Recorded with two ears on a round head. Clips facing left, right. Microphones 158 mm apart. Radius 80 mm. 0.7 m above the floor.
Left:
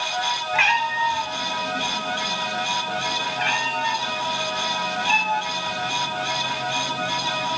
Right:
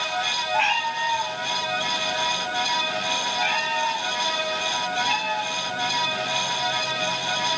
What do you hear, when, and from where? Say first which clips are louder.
0.5 s a cat meowing: even; 80° left, 7 m; by 7.6 s 70° left (ahead or behind), 3 m